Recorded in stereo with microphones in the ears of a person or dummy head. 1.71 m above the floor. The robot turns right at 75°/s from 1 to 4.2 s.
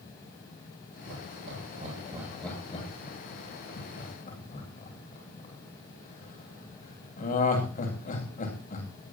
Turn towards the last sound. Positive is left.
turn(degrees=40)  # may be behind; listen again after turning